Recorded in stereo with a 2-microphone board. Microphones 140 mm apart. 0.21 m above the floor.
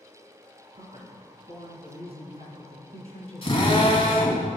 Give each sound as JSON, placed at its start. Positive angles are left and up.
{"t": 0.8, "sound": "a man speaking", "side_deg": -50, "distance_m": 2.0}
{"t": 3.4, "sound": "a drill", "side_deg": 40, "distance_m": 1.7}